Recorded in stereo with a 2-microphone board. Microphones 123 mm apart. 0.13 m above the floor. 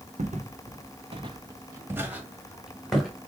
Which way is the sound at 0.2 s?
85° right.